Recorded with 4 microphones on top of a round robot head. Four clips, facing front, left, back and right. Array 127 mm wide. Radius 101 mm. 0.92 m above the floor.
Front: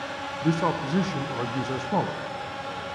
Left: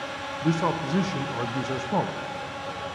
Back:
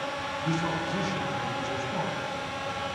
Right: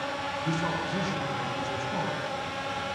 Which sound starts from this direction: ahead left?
A man speaking, at 0.4 s.